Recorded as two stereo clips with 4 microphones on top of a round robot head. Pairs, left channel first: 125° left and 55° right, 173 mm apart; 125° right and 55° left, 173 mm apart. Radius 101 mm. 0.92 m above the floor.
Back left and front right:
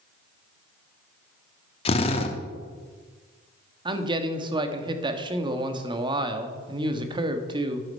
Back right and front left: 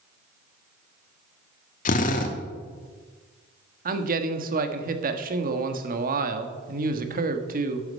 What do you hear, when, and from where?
1.9 s a drill: 175° right, 1.2 m
3.9 s a man speaking: 10° left, 1.3 m